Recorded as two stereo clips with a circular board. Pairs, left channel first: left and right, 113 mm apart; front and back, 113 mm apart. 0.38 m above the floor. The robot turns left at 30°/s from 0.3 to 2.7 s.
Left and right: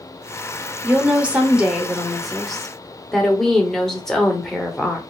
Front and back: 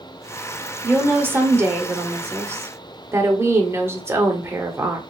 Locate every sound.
0.8 s a woman speaking: 135° right, 0.8 m; by 5.0 s 170° left, 0.8 m